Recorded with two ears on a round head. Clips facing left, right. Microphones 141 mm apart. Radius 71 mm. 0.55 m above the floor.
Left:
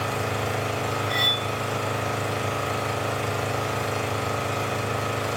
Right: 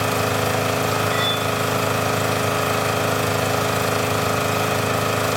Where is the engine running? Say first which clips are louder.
Right 6 dB; 65° right (ahead or behind), 0.8 m.